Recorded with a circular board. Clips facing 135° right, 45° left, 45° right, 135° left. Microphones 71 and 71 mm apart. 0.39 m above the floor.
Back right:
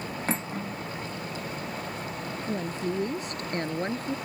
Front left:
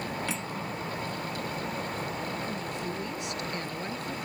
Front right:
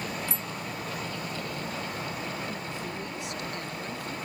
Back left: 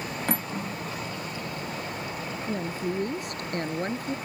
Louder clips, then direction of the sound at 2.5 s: Back right 4 dB, back left 6 dB; 175° left.